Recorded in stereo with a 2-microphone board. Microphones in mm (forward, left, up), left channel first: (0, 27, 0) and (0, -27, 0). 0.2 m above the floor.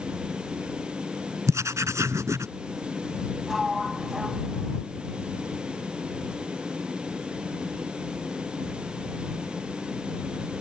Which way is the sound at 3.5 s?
5° right (ahead or behind).